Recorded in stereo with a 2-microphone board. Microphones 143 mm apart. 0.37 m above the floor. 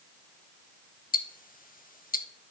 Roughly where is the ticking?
Left.